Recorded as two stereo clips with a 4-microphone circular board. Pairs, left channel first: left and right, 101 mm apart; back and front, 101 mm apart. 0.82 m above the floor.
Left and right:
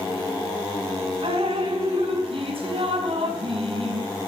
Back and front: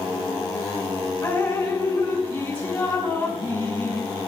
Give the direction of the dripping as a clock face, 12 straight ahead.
4 o'clock.